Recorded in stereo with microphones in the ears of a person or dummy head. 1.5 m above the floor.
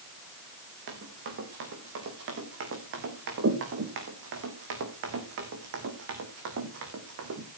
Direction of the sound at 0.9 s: 65° right (ahead or behind).